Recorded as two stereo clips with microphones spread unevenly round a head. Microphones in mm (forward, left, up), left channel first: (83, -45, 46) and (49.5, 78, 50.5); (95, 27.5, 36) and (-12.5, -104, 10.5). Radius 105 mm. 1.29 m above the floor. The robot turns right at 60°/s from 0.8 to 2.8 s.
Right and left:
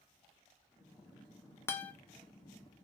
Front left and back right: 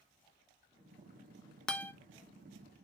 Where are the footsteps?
No footsteps in this recording.